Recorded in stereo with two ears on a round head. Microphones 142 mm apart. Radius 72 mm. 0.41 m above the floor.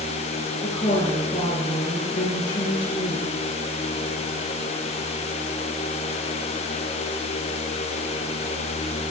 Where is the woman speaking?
30° left (ahead or behind), 6.5 m.